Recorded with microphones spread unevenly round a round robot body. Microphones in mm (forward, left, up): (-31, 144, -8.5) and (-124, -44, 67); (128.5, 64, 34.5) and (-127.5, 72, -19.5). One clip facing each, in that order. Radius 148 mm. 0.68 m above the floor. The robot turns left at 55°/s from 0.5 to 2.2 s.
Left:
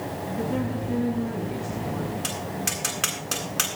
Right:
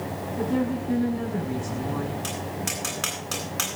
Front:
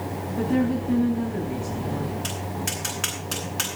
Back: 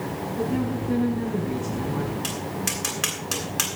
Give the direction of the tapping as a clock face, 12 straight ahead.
8 o'clock.